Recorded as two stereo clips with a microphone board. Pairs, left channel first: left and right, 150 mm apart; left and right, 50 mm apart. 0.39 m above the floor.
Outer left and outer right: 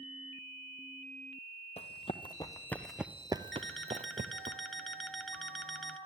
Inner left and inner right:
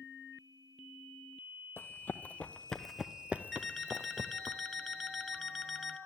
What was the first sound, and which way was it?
Running footsteps, 45° left (ahead or behind).